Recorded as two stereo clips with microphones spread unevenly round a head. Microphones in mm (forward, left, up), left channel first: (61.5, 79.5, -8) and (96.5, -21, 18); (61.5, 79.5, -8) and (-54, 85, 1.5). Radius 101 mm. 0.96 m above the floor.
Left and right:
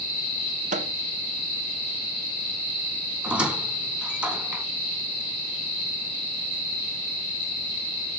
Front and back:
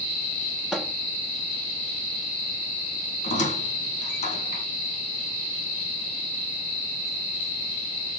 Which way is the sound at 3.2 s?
5° left.